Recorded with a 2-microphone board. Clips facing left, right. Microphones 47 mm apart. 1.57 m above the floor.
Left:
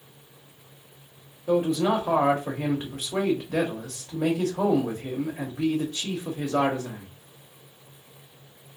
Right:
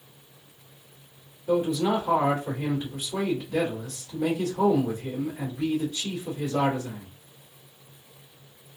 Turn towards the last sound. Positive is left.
turn(degrees=70)  # may be behind; listen again after turning